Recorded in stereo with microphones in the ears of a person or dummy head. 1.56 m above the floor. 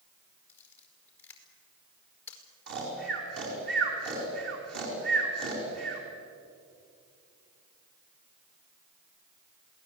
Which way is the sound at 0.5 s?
10° left (ahead or behind).